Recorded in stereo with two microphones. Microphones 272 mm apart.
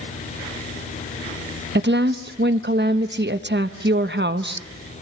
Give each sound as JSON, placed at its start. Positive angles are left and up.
{"t": 1.8, "sound": "a woman speaking", "side_deg": -40, "distance_m": 0.8}